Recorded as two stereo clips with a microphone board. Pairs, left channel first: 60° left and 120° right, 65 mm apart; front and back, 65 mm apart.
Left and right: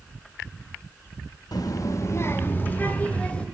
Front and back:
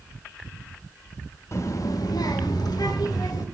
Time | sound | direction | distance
1.5 | a child speaking | 40° left | 0.8 m